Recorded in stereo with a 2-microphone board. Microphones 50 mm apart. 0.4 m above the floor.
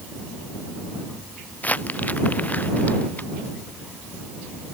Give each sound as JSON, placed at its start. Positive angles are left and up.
{"t": 1.6, "sound": "crumpling", "side_deg": 30}